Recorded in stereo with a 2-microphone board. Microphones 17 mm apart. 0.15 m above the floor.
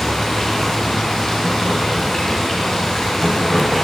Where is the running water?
35° left (ahead or behind), 8.5 m.